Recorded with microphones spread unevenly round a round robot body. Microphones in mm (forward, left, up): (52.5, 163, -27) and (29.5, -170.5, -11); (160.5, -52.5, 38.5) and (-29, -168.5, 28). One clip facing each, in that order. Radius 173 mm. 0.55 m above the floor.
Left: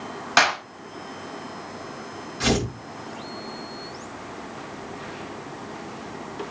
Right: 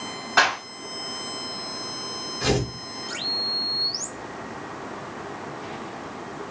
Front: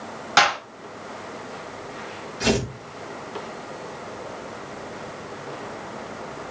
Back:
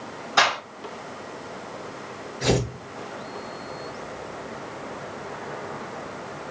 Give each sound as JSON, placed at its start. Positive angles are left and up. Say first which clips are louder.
{"t": 0.4, "sound": "a clap", "louder": "left 1 dB, front 2 dB", "azimuth_deg": 60, "distance_m": 3.5}
{"t": 2.4, "sound": "tearing paper", "louder": "left 1 dB, front 1 dB", "azimuth_deg": 65, "distance_m": 6.0}